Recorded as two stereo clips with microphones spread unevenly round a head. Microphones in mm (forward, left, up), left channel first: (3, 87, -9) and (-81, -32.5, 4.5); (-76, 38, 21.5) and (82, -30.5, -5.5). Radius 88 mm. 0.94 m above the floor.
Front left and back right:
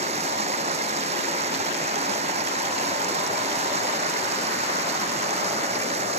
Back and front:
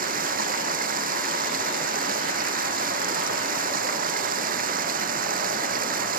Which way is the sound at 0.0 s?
70° right.